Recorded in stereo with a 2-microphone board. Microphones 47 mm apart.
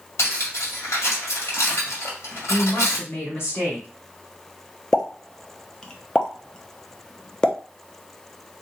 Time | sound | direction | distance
0.2 | cutlery clinking | 80° left | 1.7 m
2.5 | a woman speaking | 55° left (ahead or behind) | 2 m
4.9 | a pop | 15° left (ahead or behind) | 0.6 m